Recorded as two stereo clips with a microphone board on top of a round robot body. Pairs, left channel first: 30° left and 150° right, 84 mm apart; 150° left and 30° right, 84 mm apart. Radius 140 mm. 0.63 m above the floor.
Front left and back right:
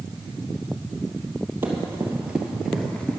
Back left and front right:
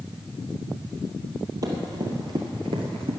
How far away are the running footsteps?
About 1.4 m.